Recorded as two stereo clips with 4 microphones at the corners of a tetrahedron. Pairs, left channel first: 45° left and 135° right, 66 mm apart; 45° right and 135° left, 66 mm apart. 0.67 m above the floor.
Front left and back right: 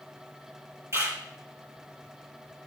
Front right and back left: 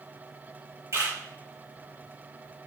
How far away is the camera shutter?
About 4.5 m.